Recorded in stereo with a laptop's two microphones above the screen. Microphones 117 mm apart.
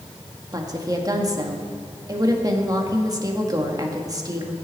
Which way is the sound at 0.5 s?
30° right (ahead or behind).